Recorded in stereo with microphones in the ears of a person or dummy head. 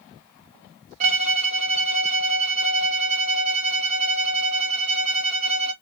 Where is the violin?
35° right (ahead or behind), 0.6 m.